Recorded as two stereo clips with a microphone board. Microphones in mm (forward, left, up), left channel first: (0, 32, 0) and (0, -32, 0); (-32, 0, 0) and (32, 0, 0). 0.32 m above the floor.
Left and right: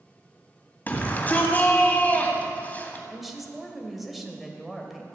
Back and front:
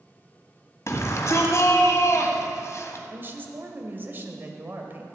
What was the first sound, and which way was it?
A shout, 150° left.